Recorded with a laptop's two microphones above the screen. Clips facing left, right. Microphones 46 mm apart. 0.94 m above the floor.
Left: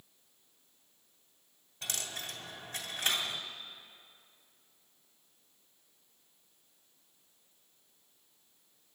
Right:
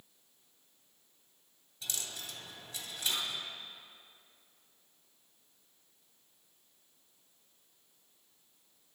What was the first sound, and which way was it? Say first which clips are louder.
A dropped coin: left 3 dB; 45° left (ahead or behind).